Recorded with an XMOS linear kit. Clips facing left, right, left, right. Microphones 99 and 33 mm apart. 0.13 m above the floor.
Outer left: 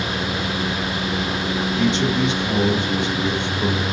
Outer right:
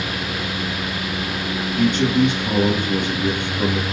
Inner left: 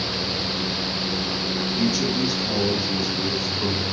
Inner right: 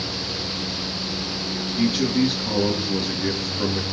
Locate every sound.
1.8 s a man speaking: 50° right (ahead or behind), 2.5 m